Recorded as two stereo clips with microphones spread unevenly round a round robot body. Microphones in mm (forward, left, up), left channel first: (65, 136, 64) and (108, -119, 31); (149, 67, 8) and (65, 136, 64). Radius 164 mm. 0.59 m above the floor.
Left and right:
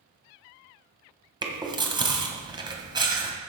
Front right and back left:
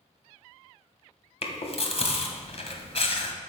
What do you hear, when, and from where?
1.4 s chewing: 5° right, 1.7 m